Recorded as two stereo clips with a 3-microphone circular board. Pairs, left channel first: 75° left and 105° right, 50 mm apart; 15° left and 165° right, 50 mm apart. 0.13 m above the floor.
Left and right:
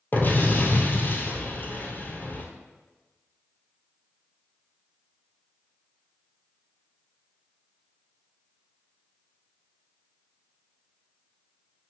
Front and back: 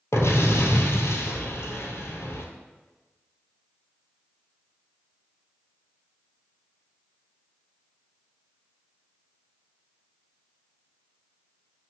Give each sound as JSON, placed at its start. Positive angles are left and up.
{"t": 0.1, "sound": "an explosion", "azimuth_deg": 30, "distance_m": 1.1}